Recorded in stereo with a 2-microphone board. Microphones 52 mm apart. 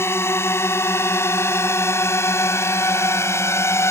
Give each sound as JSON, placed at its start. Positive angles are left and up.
{"t": 0.0, "sound": "a drone", "side_deg": 55}